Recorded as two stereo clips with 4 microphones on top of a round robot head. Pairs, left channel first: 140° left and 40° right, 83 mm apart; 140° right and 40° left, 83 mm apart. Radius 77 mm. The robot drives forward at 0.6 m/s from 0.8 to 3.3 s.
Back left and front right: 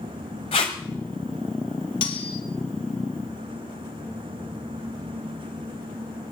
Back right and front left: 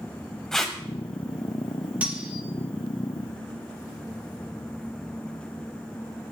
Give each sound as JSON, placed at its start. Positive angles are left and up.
{"t": 0.5, "sound": "tape being pulled", "azimuth_deg": 135, "distance_m": 1.1}
{"t": 2.0, "sound": "cutlery clinking", "azimuth_deg": 115, "distance_m": 1.6}